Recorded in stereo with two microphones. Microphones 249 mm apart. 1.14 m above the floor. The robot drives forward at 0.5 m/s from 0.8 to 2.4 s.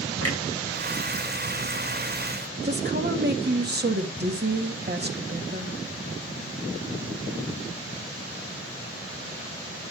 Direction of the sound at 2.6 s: 40° right (ahead or behind).